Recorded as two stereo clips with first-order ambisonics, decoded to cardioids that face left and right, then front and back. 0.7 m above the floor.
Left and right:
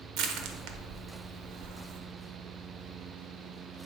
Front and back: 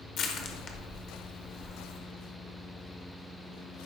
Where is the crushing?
55° right, 1.0 m.